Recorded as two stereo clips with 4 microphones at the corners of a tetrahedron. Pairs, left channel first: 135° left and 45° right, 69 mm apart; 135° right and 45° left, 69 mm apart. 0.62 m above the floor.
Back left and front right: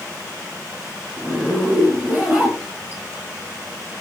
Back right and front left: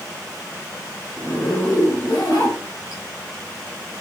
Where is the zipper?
110° right, 4.5 m.